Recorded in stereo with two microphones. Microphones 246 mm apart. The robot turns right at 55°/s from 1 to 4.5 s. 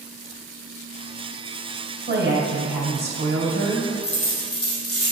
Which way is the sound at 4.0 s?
40° left (ahead or behind).